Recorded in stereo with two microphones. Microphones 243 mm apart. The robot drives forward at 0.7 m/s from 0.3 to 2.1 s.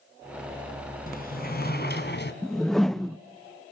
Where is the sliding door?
35° left (ahead or behind), 3 m; by 2.3 s 45° left (ahead or behind), 2.5 m.